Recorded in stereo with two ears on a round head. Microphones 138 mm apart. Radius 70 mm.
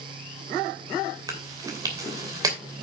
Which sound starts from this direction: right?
Chewing, at 1.3 s.